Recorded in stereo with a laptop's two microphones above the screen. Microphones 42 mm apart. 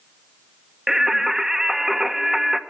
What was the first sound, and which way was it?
Singing, 10° right (ahead or behind).